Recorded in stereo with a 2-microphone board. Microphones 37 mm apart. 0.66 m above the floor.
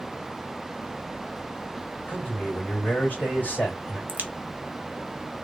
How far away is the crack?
About 0.7 m.